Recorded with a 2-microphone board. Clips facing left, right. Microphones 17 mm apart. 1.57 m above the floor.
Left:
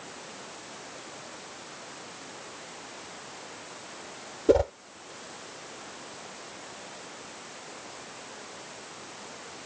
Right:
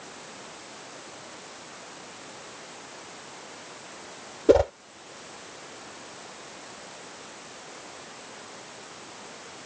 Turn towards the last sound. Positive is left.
turn(degrees=-25)  # may be behind; listen again after turning